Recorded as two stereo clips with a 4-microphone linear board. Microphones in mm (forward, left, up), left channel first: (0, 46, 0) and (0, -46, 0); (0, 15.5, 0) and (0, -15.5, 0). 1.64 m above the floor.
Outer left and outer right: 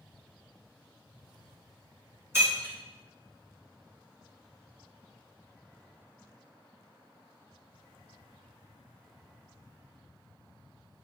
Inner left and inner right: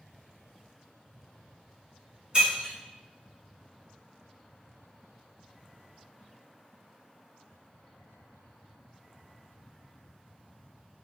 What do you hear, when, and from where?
2.3 s breaking glass: 30° right (ahead or behind), 1.8 m